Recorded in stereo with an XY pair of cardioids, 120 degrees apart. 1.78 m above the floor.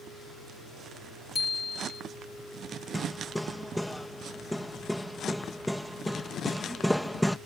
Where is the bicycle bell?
30° left.